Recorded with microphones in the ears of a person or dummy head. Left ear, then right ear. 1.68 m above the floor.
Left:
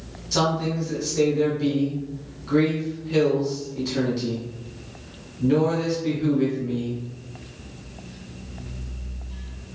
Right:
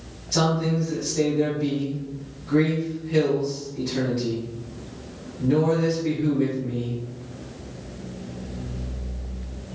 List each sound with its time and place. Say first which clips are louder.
0.3 s a man speaking: even; 30° left (ahead or behind), 1.1 m